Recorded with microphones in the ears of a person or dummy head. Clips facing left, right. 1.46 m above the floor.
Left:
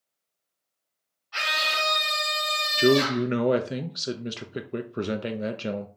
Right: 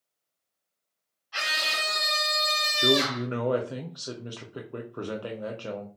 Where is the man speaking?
30° left (ahead or behind), 0.5 m.